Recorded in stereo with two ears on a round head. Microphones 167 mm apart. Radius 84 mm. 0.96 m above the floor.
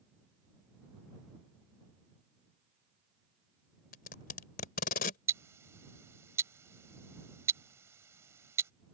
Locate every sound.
3.9 s tape being pulled: 50° left (ahead or behind)
5.3 s ticking: 15° right (ahead or behind)